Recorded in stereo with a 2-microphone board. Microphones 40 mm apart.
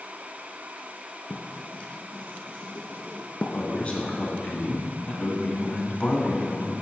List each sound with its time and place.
1.3 s writing: 35° left (ahead or behind), 0.8 m
3.5 s a man speaking: 40° left (ahead or behind), 1.3 m